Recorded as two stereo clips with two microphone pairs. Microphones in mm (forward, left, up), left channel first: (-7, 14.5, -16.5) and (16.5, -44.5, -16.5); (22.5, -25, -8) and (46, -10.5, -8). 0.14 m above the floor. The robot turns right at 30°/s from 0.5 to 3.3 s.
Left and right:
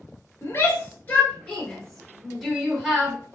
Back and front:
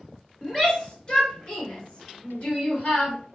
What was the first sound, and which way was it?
A shout, 145° left.